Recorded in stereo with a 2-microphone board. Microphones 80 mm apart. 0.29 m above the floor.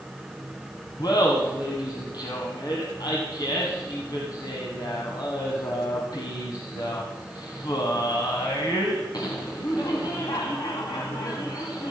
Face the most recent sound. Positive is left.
turn(degrees=60)  # may be behind; listen again after turning